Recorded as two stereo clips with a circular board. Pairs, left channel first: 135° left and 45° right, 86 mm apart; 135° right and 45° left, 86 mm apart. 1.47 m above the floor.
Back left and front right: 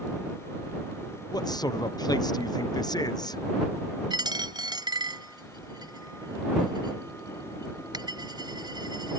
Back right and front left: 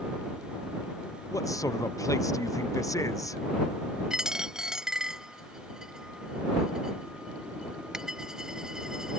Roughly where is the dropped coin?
Ahead right.